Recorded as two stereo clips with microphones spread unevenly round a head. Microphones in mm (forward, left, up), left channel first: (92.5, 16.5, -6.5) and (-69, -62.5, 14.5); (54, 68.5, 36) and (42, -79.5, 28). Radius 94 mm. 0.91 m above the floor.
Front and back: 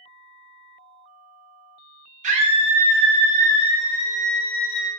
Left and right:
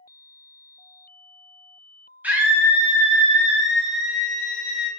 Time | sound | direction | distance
2.2 | a scream | 160° right | 0.6 m